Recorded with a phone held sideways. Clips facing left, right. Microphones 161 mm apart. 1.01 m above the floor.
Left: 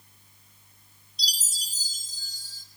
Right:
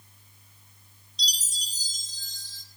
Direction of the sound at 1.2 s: 10° left (ahead or behind).